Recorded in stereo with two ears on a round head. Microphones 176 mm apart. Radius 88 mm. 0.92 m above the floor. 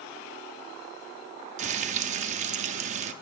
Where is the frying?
35° right (ahead or behind), 0.5 m.